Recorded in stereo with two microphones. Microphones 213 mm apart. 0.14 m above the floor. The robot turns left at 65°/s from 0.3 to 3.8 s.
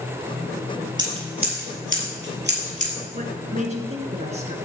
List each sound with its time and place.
1.0 s scissors: 20° right (ahead or behind), 3.5 m; by 2.9 s 30° right (ahead or behind), 3.5 m
3.1 s a woman speaking: 80° right, 2.0 m; by 4.5 s 120° right, 2.0 m